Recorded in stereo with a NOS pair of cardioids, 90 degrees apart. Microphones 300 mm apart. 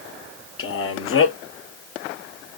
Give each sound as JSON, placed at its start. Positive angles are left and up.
{"t": 0.6, "sound": "a man speaking", "azimuth_deg": 45, "distance_m": 0.9}